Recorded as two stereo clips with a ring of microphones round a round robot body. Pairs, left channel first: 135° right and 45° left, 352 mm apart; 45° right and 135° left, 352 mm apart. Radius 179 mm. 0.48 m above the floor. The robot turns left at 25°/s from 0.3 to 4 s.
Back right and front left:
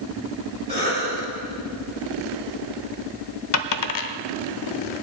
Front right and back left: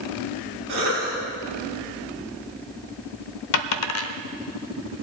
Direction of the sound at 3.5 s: 85° right.